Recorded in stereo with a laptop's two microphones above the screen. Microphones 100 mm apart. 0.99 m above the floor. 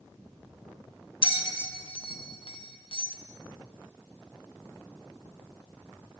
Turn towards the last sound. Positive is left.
turn(degrees=60)  # may be behind; listen again after turning